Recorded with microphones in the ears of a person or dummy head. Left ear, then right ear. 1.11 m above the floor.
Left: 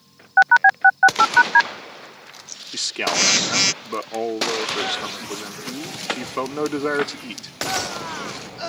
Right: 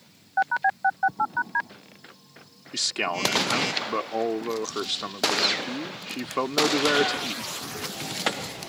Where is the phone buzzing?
45° left (ahead or behind).